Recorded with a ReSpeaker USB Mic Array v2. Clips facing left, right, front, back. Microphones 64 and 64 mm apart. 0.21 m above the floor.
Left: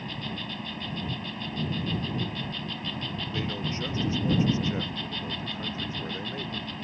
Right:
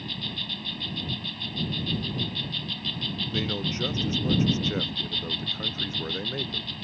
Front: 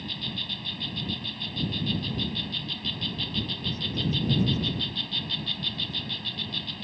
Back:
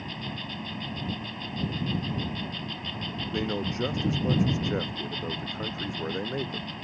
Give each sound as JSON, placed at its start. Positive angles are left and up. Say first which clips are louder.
{"t": 0.0, "sound": "an insect", "louder": "left 1 dB, back 1 dB", "azimuth_deg": 140}
{"t": 3.3, "sound": "a man speaking", "louder": "right 3 dB, back 4 dB", "azimuth_deg": -160}